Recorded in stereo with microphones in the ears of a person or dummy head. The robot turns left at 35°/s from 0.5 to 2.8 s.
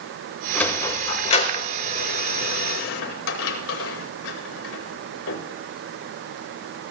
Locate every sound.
0.6 s a sliding door: 10° left (ahead or behind), 1.9 m; by 5.4 s 80° left, 1.9 m